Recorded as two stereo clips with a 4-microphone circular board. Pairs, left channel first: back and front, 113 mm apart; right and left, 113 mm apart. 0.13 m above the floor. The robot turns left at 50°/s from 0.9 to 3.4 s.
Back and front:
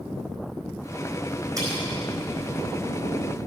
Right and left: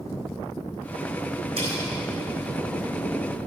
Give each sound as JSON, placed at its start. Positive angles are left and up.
{"t": 1.6, "sound": "cutlery clinking", "azimuth_deg": 60, "distance_m": 4.0}